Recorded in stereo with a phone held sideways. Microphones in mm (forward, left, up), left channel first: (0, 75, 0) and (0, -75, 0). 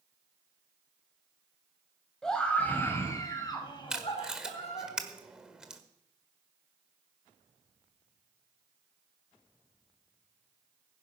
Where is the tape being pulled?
5° right (ahead or behind), 1.4 m.